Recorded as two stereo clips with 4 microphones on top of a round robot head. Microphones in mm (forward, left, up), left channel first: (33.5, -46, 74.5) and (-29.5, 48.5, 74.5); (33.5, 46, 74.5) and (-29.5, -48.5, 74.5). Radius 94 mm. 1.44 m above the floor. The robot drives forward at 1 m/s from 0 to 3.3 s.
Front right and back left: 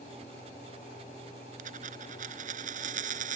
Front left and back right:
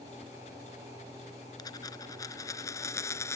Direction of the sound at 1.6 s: 115° left.